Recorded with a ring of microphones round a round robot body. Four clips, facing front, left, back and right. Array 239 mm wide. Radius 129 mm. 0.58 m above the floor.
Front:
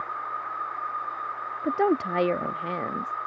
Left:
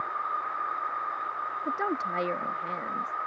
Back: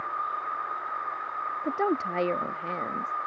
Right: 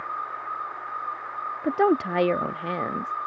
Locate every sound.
1.6 s a woman speaking: 65° right